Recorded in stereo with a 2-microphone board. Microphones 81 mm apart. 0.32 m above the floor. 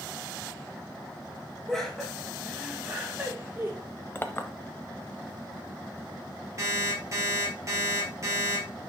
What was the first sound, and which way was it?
Laughter, 5° left (ahead or behind).